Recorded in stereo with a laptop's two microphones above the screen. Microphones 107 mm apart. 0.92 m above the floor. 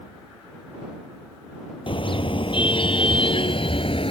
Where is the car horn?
55° left (ahead or behind); by 4.1 s 60° left (ahead or behind).